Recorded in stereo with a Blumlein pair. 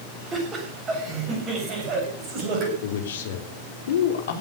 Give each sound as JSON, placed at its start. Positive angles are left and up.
{"t": 0.3, "sound": "laughter", "azimuth_deg": -20, "distance_m": 7.0}
{"t": 2.8, "sound": "a man speaking", "azimuth_deg": 60, "distance_m": 3.0}